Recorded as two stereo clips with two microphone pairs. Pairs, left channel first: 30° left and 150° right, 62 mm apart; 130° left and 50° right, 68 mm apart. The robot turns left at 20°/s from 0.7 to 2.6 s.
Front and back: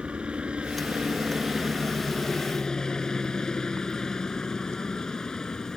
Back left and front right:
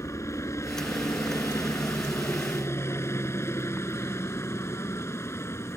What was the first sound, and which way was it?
A helicopter, 140° left.